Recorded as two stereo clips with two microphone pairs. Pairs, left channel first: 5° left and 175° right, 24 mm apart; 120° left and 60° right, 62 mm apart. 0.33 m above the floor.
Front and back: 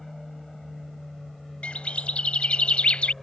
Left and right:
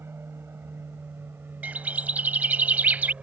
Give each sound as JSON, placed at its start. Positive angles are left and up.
{"t": 0.0, "sound": "an aircraft", "azimuth_deg": -75}
{"t": 1.6, "sound": "a bird", "azimuth_deg": 0}